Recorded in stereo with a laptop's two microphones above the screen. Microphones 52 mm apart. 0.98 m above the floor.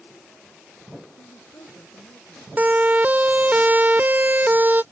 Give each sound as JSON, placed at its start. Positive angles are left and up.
{"t": 1.2, "sound": "a woman speaking", "side_deg": 75}
{"t": 2.6, "sound": "a siren", "side_deg": -30}